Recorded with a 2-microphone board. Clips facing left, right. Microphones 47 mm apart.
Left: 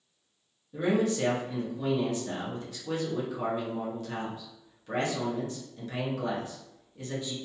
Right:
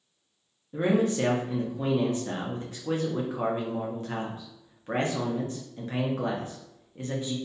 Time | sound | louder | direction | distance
0.7 | a man speaking | right 2 dB | 35° right (ahead or behind) | 0.6 m